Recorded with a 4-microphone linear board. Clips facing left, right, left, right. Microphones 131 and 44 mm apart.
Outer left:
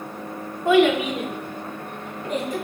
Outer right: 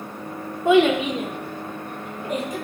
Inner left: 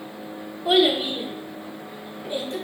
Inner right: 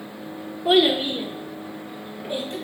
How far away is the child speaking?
About 0.5 m.